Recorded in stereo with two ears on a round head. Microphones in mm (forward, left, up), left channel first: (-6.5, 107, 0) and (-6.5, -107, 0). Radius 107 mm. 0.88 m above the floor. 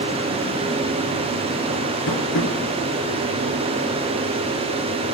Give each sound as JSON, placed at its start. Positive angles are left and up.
{"t": 2.1, "sound": "tapping", "side_deg": 55, "distance_m": 5.0}